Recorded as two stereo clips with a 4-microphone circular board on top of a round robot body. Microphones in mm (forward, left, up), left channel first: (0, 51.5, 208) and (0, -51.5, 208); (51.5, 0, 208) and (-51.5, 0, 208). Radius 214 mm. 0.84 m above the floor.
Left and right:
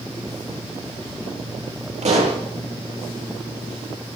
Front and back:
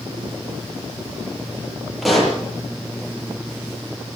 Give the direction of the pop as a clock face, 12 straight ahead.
3 o'clock.